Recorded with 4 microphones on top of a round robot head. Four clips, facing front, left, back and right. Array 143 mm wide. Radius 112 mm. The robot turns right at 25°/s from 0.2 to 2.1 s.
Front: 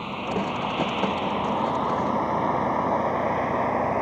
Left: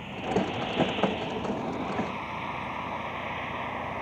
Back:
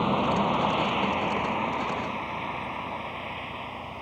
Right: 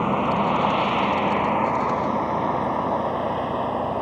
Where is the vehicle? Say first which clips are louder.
Right 8 dB, back 4 dB; 110° right; by 4.0 s 40° right.